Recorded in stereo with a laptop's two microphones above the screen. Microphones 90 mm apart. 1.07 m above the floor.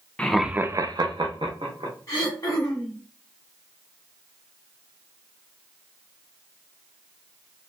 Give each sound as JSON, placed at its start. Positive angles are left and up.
{"t": 0.2, "sound": "laughter", "side_deg": 10, "distance_m": 0.5}
{"t": 2.1, "sound": "throat clearing", "side_deg": 40, "distance_m": 1.2}